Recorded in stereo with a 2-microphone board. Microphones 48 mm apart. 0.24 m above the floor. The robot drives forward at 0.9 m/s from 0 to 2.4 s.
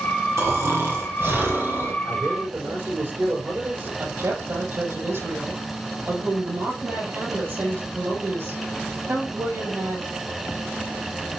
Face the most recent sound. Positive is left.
turn(degrees=-50)  # may be behind; listen again after turning